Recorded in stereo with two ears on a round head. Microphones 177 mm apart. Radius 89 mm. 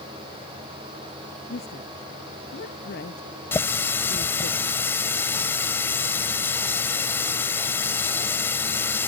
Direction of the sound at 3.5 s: 10° left (ahead or behind).